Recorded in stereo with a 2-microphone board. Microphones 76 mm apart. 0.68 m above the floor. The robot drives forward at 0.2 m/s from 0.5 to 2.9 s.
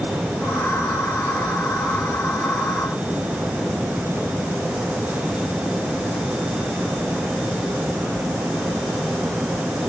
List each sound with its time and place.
Only background noise.